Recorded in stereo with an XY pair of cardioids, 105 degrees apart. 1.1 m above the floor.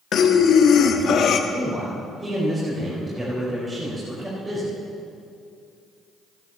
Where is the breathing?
60° left, 1.5 m.